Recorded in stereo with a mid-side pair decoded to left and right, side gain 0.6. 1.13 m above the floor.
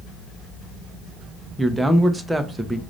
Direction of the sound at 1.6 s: 5° right.